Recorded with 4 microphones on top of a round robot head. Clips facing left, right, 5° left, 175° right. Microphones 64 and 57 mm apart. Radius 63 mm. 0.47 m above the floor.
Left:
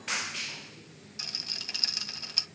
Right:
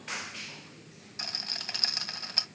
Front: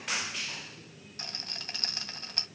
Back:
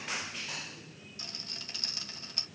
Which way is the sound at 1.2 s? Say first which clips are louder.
Right 4 dB, front 5 dB; 40° right.